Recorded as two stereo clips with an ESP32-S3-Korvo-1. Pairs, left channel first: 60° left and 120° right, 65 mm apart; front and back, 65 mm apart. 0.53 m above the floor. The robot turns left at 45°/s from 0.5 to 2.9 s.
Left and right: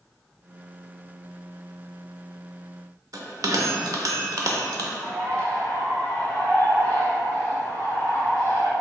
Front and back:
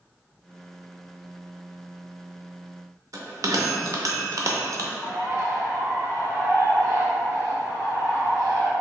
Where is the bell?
150° right, 0.5 m.